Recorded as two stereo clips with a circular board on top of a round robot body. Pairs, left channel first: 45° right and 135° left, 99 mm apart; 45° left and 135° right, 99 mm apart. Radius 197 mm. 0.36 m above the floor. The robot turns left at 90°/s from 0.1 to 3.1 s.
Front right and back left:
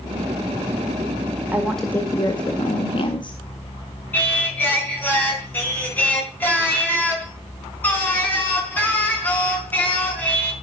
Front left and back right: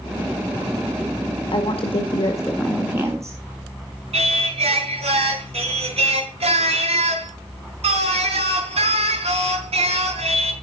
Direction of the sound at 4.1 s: 120° right.